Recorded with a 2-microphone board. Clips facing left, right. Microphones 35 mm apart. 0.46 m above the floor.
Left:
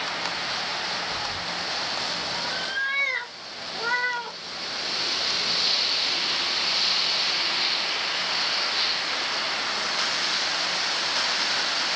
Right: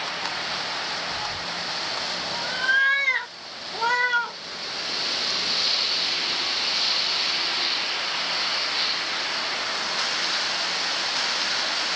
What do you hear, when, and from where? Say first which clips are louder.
1.1 s a cat meowing: even; 5° left (ahead or behind), 0.6 m; by 4.4 s 90° right, 1.6 m